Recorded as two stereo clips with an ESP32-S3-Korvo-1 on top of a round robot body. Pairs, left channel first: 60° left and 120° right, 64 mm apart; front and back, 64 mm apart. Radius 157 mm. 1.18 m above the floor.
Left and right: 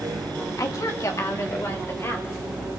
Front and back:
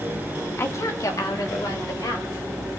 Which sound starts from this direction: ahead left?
A woman speaking, at 0.6 s.